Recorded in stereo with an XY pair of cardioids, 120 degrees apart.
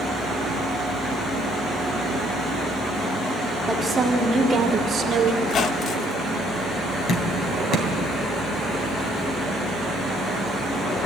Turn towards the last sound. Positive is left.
turn(degrees=65)